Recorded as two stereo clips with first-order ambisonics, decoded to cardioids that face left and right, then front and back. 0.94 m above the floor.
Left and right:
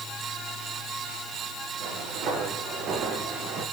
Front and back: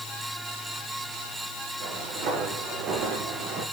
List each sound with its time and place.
1.8 s footsteps: 130° right, 9 m; by 3.6 s 125° right, 8 m